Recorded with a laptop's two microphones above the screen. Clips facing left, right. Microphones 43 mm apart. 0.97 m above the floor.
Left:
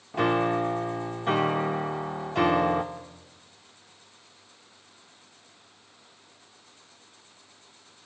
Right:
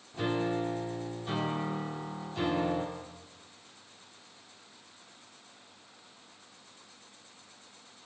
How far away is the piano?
About 1.5 m.